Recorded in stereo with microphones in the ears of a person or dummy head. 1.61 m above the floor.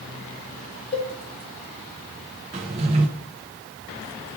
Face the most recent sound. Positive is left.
turn(degrees=-20)  # may be behind; listen again after turning